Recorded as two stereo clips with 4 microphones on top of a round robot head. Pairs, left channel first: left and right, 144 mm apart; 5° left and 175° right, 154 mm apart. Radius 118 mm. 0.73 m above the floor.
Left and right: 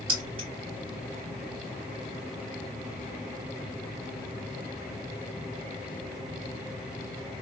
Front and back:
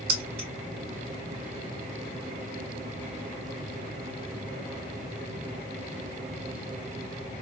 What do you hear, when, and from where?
0.1 s keys jangling: 150° right, 2.5 m